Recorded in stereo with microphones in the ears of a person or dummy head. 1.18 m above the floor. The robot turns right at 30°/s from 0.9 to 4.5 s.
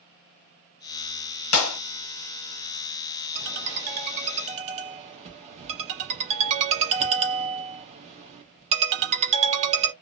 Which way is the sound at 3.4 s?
70° right.